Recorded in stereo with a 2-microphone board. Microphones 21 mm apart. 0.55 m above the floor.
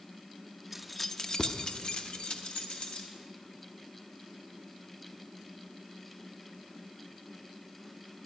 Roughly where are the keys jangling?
Centre.